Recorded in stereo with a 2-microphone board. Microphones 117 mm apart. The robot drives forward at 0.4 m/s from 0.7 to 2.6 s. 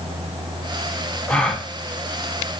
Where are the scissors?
I don't hear scissors.